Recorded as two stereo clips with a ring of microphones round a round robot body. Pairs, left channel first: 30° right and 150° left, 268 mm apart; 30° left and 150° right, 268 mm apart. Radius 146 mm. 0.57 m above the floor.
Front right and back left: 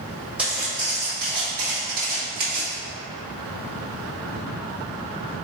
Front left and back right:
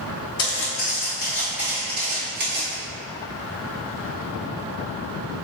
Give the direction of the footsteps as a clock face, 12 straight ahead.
10 o'clock.